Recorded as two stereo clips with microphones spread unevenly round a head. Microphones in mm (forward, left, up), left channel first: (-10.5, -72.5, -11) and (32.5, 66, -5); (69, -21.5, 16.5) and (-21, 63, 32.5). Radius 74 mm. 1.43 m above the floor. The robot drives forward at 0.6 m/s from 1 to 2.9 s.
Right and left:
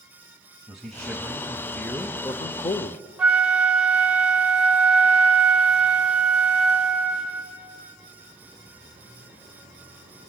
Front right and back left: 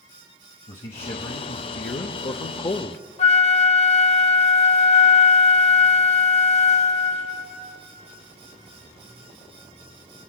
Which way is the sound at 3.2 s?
10° right.